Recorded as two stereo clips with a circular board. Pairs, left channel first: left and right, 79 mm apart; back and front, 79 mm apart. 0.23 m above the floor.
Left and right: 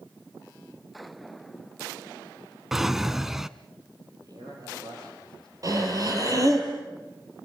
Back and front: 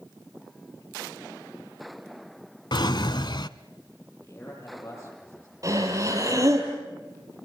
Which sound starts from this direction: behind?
A drawer, at 2.7 s.